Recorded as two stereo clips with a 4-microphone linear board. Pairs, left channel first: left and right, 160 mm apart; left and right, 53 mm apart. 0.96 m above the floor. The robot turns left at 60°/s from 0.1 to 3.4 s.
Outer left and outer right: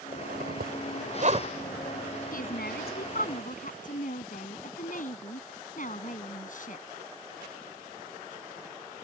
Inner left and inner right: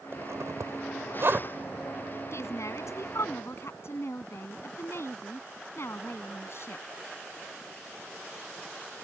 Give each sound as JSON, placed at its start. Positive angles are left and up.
{"t": 0.1, "sound": "a zipper", "side_deg": -60}
{"t": 2.3, "sound": "a woman speaking", "azimuth_deg": 120}